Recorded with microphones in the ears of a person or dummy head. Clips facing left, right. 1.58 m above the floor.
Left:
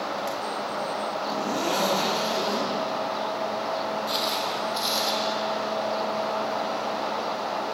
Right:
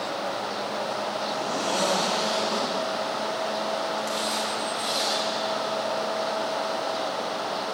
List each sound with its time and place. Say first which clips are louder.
1.3 s a zipper: left 3 dB; 80° left, 5 m
4.1 s footsteps: even; 55° left (ahead or behind), 4 m; by 5.1 s 65° left (ahead or behind), 5 m